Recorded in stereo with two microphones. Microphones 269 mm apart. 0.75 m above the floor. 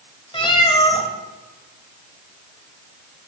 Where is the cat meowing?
20° left (ahead or behind), 1.8 m.